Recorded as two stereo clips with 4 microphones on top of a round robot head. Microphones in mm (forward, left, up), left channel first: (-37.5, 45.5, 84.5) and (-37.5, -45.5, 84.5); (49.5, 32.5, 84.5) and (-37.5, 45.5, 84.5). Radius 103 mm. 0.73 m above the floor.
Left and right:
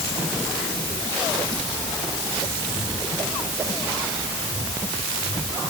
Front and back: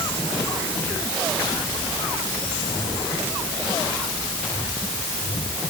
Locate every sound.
Only background noise.